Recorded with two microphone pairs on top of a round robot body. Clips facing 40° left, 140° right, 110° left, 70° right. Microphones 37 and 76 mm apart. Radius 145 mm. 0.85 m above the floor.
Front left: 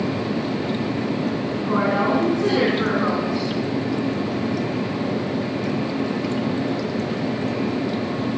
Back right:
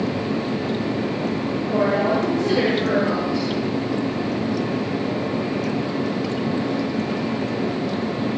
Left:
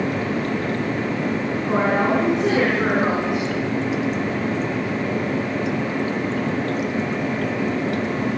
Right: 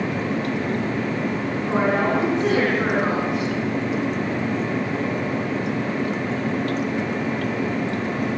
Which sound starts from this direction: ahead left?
A woman speaking, at 1.6 s.